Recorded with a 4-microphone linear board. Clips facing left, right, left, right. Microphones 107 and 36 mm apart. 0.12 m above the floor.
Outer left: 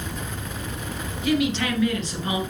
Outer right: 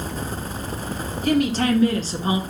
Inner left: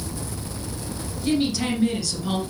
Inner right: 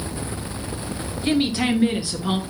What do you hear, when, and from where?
1.2 s a woman speaking: 40° right (ahead or behind), 2.5 m; by 2.4 s 25° right (ahead or behind), 2.0 m